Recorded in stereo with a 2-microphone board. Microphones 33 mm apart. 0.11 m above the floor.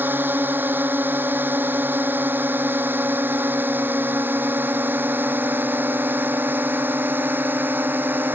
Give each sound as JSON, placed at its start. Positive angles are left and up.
{"t": 0.0, "sound": "a drone", "side_deg": -65}